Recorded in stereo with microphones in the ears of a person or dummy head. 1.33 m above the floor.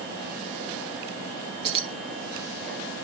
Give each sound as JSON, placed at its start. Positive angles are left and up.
{"t": 1.6, "sound": "keys jangling", "side_deg": -25, "distance_m": 1.3}